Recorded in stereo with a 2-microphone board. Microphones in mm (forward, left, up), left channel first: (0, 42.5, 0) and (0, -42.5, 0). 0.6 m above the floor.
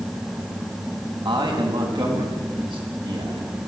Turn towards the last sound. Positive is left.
turn(degrees=-75)  # may be behind; listen again after turning